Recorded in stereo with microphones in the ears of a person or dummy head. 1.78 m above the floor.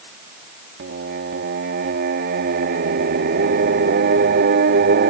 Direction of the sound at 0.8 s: 50° right (ahead or behind).